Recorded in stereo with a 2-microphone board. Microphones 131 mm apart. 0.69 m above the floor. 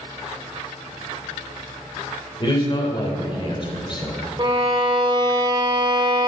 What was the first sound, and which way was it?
A man speaking, 35° left (ahead or behind).